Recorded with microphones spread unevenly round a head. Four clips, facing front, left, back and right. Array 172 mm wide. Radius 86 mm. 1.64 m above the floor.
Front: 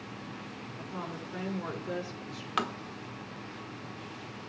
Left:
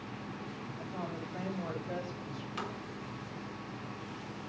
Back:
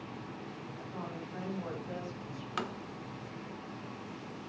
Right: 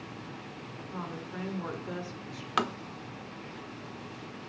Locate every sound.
0.8 s a woman speaking: 35° right, 6.5 m
2.6 s tapping: 75° right, 1.0 m